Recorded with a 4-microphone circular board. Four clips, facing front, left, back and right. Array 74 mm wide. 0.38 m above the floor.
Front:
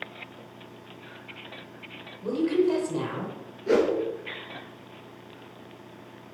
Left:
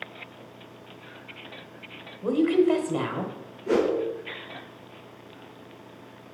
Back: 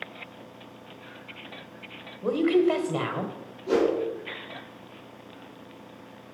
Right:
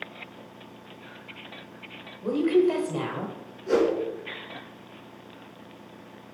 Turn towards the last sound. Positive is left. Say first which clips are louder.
# right 1 dB, front 1 dB
turn(degrees=20)